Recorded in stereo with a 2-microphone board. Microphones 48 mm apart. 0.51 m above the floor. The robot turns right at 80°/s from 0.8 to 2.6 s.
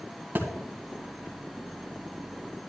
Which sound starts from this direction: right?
A thud, at 0.3 s.